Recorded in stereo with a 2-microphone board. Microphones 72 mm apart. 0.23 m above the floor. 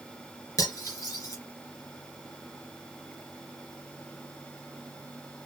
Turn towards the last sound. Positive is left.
turn(degrees=50)  # may be behind; listen again after turning